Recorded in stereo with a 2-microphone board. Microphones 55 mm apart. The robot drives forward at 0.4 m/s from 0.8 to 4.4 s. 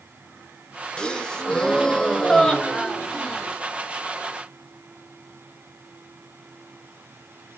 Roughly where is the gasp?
Centre.